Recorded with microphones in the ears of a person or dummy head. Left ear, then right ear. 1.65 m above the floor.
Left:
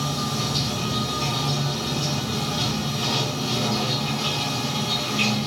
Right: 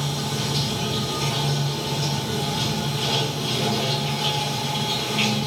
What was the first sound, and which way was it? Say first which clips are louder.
Running water: left 1 dB; 15° right (ahead or behind).